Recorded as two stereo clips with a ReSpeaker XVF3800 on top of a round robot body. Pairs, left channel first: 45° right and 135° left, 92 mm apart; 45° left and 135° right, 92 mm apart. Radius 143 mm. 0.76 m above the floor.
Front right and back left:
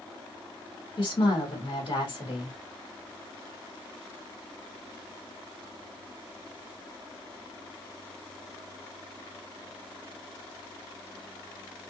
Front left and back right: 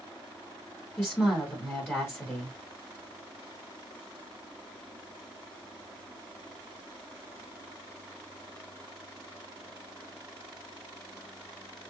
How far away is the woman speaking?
About 2.0 m.